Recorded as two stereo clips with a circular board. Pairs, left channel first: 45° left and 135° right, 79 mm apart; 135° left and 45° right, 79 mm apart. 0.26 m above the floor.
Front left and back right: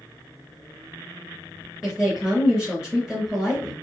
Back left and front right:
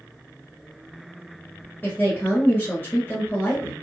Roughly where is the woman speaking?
Behind left.